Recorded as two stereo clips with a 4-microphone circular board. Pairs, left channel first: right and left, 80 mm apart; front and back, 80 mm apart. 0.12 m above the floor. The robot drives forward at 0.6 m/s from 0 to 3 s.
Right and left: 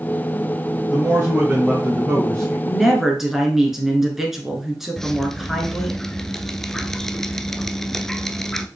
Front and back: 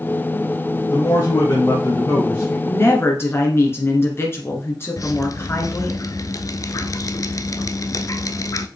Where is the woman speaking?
5° left, 2 m; by 6.0 s 10° left, 1.9 m.